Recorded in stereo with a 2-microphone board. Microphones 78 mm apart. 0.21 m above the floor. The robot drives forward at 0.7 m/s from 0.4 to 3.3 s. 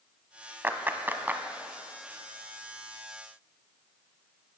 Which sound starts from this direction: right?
A clap, at 0.6 s.